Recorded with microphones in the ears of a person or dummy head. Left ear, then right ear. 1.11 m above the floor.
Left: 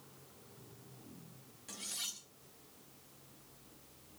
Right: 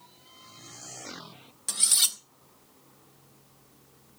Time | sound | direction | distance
1.7 | cutlery clinking | 45° right (ahead or behind) | 0.8 m